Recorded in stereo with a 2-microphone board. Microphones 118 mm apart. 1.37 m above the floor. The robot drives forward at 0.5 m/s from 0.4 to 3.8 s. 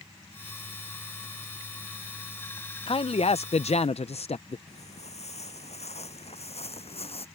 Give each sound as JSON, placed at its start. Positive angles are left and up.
{"t": 2.9, "sound": "a man speaking", "side_deg": 50}
{"t": 4.7, "sound": "footsteps", "side_deg": 80}